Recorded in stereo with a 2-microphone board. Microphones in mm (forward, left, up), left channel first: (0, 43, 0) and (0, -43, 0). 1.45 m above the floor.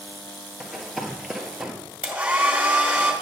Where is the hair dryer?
20° right (ahead or behind), 2 m.